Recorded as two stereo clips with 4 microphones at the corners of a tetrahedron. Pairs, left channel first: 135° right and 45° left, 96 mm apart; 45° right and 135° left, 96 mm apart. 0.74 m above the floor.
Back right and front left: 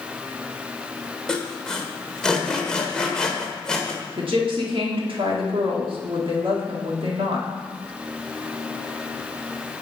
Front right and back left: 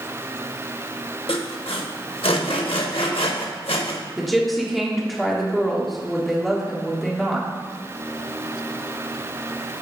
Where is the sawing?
55° right, 0.9 m.